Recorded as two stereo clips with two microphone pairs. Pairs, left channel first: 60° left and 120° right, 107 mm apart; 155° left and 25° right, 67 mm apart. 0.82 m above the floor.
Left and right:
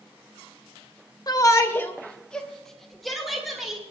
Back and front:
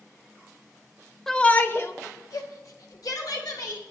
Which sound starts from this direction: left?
A shout, at 1.3 s.